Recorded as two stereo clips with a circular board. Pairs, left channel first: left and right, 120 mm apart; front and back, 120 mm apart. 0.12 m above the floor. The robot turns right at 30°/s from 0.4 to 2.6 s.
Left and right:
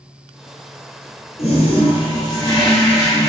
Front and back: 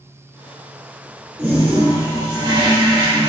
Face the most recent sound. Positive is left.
turn(degrees=145)